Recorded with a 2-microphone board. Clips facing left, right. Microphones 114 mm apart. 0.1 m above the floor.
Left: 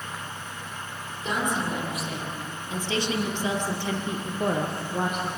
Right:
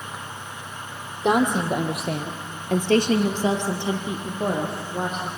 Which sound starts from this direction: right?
A woman speaking, at 1.2 s.